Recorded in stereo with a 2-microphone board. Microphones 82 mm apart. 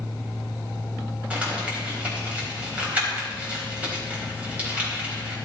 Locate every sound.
1.3 s crumpling: 20° right (ahead or behind), 4 m